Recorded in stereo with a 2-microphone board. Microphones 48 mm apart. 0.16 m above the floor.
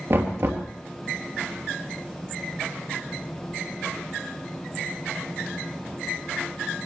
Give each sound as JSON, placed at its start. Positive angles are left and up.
{"t": 0.1, "sound": "knocking", "side_deg": -60, "distance_m": 2.5}